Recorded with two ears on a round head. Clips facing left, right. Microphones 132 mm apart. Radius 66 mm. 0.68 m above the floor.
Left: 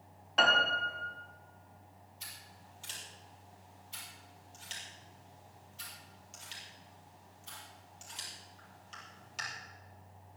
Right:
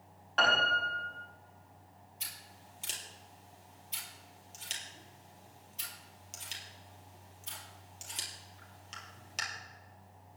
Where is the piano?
15° left (ahead or behind), 4.5 m.